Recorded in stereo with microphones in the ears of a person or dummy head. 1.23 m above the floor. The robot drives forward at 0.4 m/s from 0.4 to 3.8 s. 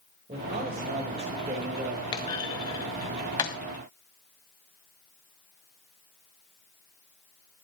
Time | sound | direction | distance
0.3 | a man speaking | 25° right (ahead or behind) | 4.5 m
2.1 | a clunk | 25° left (ahead or behind) | 1.8 m